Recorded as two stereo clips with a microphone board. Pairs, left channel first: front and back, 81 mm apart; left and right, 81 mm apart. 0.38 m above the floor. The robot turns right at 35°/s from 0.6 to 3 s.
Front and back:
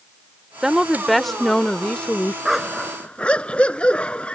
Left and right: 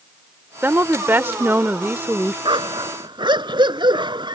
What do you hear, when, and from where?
0.6 s a woman speaking: 105° right; by 2.4 s 45° right
2.5 s a dog barking: 95° right; by 4.3 s 75° right